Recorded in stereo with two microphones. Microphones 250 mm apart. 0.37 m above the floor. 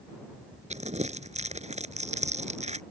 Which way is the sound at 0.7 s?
30° right (ahead or behind).